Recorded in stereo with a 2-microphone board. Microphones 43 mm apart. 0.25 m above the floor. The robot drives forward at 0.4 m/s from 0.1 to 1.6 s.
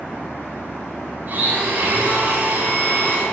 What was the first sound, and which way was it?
A blender, 50° right (ahead or behind).